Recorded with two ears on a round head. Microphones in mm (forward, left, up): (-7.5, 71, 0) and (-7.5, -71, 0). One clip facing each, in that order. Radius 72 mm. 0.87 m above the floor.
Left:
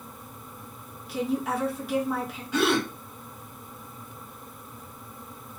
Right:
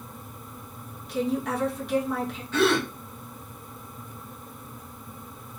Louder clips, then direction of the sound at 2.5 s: Right 1 dB; 10° left (ahead or behind).